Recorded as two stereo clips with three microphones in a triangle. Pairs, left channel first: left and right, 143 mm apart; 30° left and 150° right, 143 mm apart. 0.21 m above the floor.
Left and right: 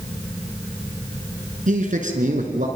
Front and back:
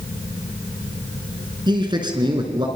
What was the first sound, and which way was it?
A man speaking, 95° right.